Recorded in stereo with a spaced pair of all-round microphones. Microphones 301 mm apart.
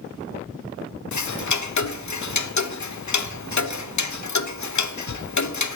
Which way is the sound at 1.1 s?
70° left (ahead or behind).